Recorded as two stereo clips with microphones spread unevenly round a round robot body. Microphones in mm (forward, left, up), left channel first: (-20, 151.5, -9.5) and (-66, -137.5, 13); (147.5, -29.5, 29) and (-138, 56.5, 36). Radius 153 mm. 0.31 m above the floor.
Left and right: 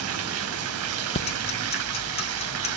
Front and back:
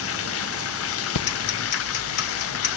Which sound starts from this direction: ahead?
Ticking, at 1.1 s.